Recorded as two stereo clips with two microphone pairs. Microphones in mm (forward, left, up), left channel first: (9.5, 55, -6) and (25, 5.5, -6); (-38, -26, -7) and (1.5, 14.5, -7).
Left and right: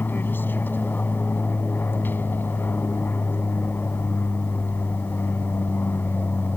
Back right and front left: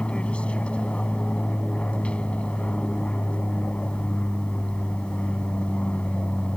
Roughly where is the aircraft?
Behind left.